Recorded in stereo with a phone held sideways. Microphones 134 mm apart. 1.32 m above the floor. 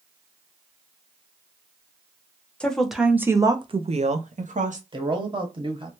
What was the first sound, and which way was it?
A woman speaking, 10° left (ahead or behind).